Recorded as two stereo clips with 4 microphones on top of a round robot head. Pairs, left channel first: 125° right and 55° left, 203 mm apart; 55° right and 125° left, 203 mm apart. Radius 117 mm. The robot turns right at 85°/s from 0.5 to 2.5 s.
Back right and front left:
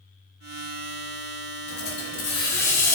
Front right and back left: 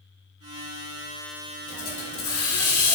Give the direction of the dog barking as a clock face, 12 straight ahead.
No dog barking in this recording.